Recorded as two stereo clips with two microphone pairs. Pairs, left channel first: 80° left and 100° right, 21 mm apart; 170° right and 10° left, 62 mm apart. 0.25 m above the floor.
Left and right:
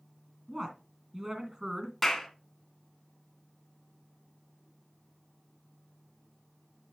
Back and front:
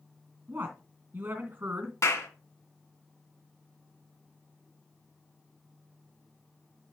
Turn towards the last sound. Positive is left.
turn(degrees=170)